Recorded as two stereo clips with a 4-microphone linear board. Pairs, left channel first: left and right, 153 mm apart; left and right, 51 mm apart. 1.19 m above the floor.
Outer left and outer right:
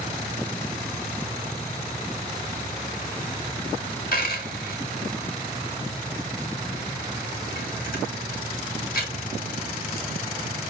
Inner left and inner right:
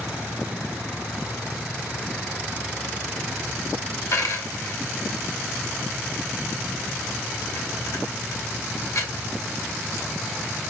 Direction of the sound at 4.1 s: 65° left (ahead or behind).